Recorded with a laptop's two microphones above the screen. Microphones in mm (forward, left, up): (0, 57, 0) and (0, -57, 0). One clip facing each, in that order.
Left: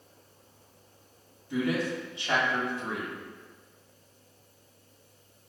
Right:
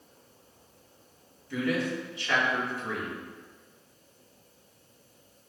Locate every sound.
1.5 s a man speaking: 20° left (ahead or behind), 1.6 m